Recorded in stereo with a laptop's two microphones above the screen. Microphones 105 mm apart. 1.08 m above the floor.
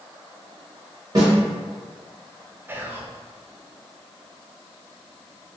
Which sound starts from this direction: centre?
Whispering, at 2.7 s.